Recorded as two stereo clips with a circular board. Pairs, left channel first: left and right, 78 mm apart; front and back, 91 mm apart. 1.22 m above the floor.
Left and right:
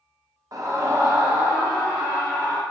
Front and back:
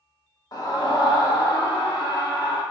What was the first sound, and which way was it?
A scream, 45° right.